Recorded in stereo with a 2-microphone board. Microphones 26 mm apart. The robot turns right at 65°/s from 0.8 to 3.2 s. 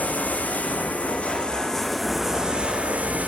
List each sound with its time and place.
0.0 s running water: 100° left, 2.5 m; by 3.3 s 105° right, 2.5 m